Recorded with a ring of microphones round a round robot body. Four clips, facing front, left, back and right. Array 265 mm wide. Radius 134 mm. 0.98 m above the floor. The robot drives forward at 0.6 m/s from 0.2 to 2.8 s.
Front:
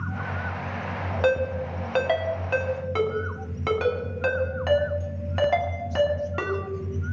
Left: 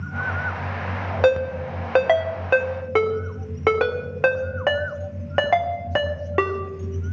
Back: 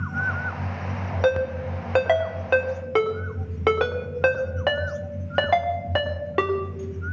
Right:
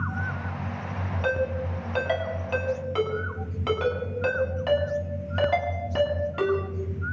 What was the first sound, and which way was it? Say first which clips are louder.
A ringtone: left 8 dB, back 1 dB; 95° left.